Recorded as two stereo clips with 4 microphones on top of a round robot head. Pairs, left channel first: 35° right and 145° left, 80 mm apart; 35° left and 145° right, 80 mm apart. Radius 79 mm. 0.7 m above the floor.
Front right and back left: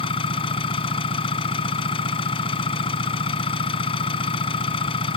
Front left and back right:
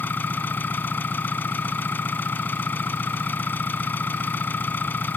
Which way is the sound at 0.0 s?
30° right.